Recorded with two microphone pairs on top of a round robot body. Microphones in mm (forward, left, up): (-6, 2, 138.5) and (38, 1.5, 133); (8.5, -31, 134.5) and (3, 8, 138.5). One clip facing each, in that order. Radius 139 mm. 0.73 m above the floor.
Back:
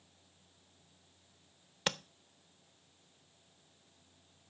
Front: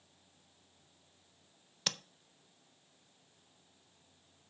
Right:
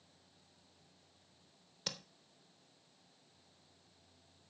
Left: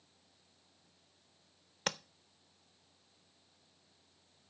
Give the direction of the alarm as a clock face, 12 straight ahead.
I don't hear an alarm.